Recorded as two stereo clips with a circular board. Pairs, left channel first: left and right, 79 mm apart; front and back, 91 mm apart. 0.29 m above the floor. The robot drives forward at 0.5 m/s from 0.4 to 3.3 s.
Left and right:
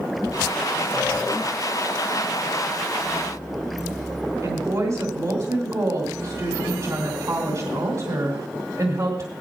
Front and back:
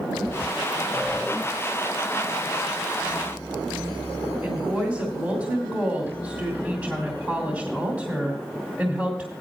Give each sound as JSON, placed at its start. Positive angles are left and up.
{"t": 4.4, "sound": "a woman speaking", "azimuth_deg": -110, "distance_m": 2.5}